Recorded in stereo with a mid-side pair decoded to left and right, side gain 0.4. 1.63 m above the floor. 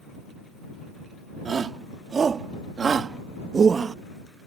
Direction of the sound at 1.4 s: 50° right.